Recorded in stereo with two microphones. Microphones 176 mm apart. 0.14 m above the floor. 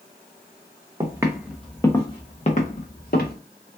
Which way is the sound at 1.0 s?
25° right (ahead or behind).